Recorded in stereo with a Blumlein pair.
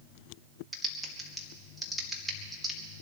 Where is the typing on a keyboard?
Straight ahead, 2 m.